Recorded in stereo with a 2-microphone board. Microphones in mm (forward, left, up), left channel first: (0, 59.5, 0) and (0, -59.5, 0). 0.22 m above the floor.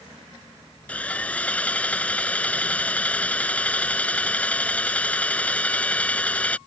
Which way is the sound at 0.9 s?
10° left (ahead or behind).